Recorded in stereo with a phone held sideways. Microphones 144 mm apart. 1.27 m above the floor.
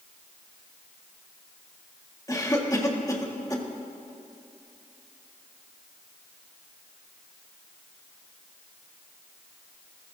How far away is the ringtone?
I don't hear a ringtone.